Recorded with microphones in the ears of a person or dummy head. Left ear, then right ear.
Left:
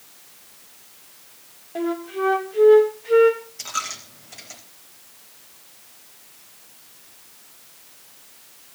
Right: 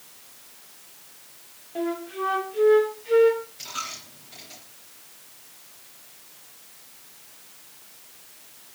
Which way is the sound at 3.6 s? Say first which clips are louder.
Left 5 dB; 40° left (ahead or behind).